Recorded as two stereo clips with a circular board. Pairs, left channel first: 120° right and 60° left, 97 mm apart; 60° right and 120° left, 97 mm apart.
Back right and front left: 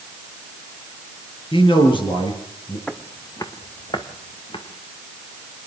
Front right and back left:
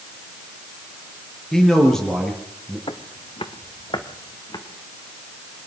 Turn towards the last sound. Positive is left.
turn(degrees=-100)